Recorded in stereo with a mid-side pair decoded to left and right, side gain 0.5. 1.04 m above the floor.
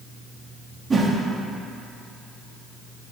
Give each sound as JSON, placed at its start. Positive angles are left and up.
{"t": 0.9, "sound": "a whoosh", "azimuth_deg": -35, "distance_m": 1.3}